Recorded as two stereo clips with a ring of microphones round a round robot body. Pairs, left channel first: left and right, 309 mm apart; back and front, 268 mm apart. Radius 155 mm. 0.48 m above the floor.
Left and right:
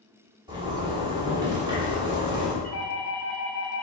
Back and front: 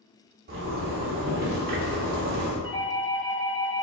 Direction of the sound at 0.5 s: 20° right.